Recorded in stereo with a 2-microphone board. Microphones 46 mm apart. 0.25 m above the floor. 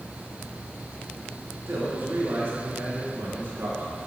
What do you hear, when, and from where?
1.7 s a man speaking: 55° right (ahead or behind), 4 m